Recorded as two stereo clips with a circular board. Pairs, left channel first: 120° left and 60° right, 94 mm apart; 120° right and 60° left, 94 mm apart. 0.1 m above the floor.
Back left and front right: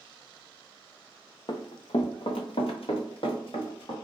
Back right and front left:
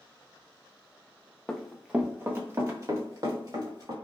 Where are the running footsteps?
160° left, 0.6 m; by 4.0 s 105° left, 2.0 m.